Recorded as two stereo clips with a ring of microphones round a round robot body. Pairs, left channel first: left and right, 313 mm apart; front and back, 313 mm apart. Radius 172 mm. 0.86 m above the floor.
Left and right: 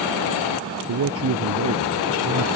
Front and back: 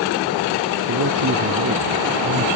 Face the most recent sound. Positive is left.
turn(degrees=-135)